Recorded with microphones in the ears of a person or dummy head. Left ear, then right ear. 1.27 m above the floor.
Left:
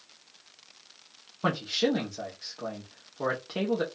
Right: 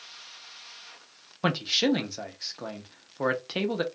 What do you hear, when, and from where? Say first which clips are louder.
1.4 s a man speaking: right 2 dB; 35° right (ahead or behind), 0.6 m